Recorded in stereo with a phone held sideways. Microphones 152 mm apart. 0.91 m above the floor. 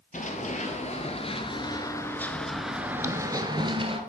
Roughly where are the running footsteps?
Left.